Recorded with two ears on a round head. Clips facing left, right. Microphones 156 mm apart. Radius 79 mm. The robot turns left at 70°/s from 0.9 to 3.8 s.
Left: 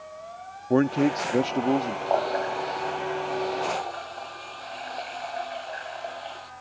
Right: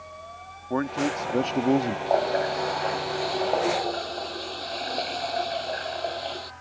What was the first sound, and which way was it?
A man speaking, 45° left.